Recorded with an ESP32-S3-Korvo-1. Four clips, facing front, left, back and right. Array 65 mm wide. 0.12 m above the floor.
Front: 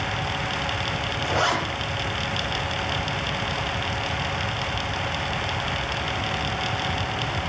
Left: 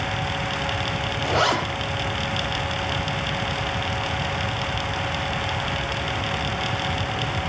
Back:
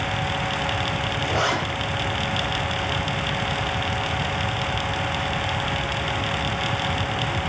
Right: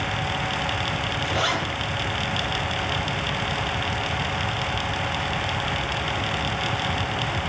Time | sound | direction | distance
1.2 | a zipper | 90° left | 3 m